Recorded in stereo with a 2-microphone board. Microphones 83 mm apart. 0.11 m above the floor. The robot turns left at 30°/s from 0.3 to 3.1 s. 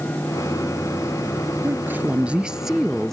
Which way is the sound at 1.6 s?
140° right.